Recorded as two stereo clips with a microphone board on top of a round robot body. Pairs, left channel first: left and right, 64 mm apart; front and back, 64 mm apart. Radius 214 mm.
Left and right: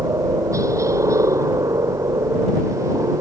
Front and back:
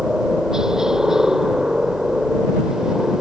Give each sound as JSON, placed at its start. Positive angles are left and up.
{"t": 0.0, "sound": "a helicopter", "azimuth_deg": -100}